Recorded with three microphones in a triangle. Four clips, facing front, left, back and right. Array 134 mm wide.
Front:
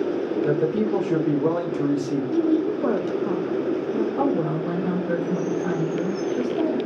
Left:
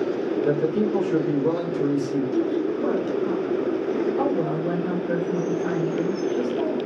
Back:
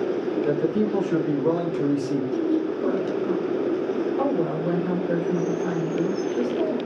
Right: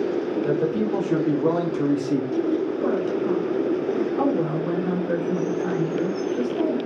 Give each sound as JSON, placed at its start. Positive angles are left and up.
{"t": 0.4, "sound": "a man speaking", "azimuth_deg": -30, "distance_m": 1.5}
{"t": 2.3, "sound": "a woman speaking", "azimuth_deg": 5, "distance_m": 0.5}
{"t": 4.2, "sound": "a woman speaking", "azimuth_deg": 0, "distance_m": 1.5}